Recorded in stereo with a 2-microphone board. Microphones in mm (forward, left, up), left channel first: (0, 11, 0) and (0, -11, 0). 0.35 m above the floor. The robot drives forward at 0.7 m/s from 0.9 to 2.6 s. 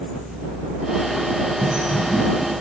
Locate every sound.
1.6 s a bird: 40° right (ahead or behind), 2.5 m; by 2.2 s 35° right (ahead or behind), 3 m